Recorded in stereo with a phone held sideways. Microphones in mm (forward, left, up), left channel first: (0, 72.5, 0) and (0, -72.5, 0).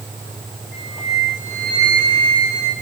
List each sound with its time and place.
0.7 s a flute: centre (ahead or behind), 2 m